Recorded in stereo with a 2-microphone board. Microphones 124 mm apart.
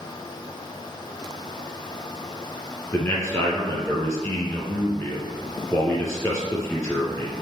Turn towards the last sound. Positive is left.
turn(degrees=25)  # may be behind; listen again after turning